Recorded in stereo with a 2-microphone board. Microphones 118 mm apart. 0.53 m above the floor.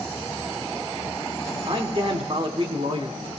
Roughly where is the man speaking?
Right.